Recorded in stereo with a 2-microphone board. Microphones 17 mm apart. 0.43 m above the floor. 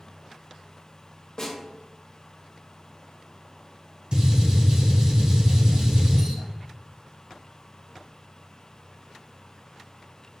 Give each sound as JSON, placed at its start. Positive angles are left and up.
{"t": 1.4, "sound": "a snare drum", "side_deg": 40, "distance_m": 0.9}
{"t": 4.1, "sound": "a gunshot", "side_deg": -65, "distance_m": 1.3}